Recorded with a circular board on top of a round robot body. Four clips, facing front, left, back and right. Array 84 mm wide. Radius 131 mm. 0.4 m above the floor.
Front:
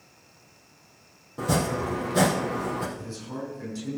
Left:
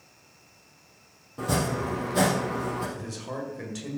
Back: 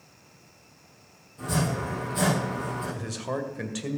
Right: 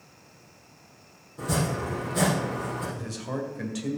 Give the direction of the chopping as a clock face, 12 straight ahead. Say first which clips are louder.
Left 1 dB, front 3 dB; 11 o'clock.